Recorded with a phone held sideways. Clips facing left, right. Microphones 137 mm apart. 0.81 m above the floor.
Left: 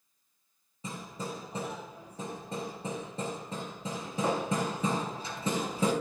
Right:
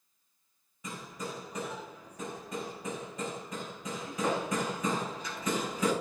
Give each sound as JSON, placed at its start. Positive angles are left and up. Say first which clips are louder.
{"t": 0.8, "sound": "hammering", "louder": "left 1 dB", "side_deg": 30, "distance_m": 4.5}